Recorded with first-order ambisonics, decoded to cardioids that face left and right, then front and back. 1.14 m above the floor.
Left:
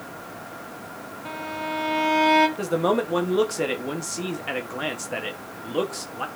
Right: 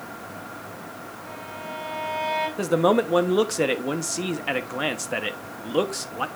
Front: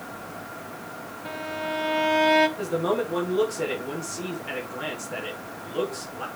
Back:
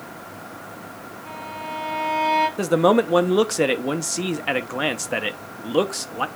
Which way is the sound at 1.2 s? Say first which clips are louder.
Left 7 dB, front 2 dB; 55° left.